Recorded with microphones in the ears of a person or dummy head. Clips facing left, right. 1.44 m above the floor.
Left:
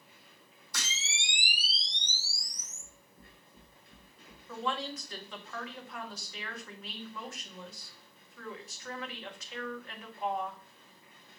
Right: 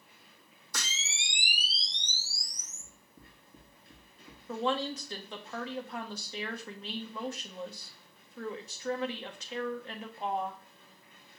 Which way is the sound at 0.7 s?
40° right (ahead or behind).